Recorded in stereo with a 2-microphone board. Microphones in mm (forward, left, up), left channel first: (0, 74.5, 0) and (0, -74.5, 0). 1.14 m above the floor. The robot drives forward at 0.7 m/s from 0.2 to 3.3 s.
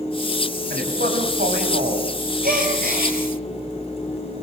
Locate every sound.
0.7 s a man speaking: 90° right, 6.5 m; by 2.1 s 80° right, 6.5 m
2.4 s a gasp: 80° right, 7.5 m